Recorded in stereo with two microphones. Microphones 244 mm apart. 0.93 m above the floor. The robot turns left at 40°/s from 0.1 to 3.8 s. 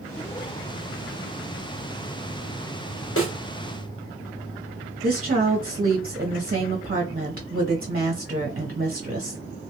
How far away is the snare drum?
About 0.9 m.